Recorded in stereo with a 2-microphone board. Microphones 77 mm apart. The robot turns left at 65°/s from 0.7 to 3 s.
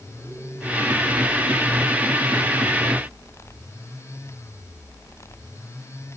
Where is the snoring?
No snoring in this recording.